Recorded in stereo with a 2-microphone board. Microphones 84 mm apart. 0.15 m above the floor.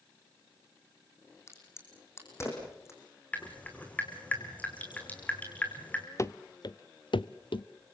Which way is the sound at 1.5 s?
35° left (ahead or behind).